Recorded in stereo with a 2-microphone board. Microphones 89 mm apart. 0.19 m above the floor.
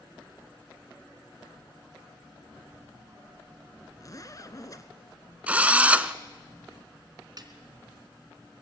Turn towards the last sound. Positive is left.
turn(degrees=-50)  # may be behind; listen again after turning